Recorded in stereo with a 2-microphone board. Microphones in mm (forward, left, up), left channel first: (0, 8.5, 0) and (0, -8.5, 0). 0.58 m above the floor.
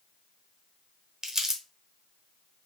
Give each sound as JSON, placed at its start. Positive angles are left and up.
{"t": 1.2, "sound": "crumpling", "side_deg": -30, "distance_m": 0.8}